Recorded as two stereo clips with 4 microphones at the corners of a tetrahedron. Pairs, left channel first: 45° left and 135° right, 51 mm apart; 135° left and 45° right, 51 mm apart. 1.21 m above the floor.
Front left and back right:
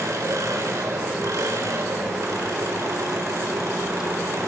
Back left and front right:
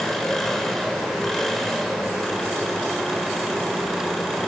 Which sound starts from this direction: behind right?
An engine running, at 0.0 s.